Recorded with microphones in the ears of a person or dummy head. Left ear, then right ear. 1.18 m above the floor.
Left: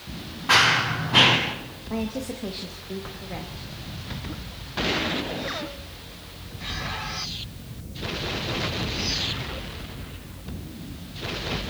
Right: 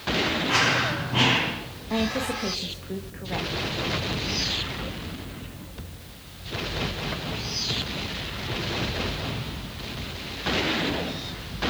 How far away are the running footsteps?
About 5.5 m.